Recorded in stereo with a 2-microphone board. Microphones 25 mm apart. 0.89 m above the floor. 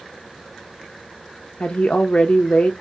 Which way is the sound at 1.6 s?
55° left (ahead or behind).